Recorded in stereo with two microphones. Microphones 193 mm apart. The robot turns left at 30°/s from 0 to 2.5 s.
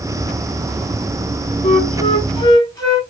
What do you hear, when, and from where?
1.6 s a flute: 30° left (ahead or behind), 1.5 m; by 3.0 s 20° left (ahead or behind), 1.5 m